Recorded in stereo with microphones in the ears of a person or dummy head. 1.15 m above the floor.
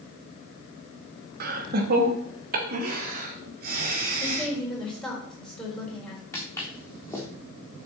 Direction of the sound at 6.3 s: 15° left (ahead or behind).